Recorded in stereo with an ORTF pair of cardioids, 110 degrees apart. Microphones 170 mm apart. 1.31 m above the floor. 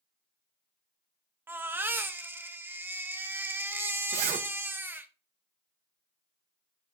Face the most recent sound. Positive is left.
turn(degrees=-50)